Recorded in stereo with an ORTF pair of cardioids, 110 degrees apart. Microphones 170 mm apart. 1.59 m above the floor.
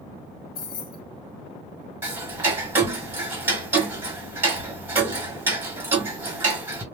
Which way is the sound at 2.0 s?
15° right.